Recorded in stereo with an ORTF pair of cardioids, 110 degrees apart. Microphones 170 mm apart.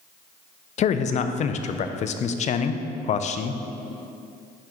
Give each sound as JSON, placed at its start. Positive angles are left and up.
{"t": 0.8, "sound": "a man speaking", "azimuth_deg": 45, "distance_m": 0.5}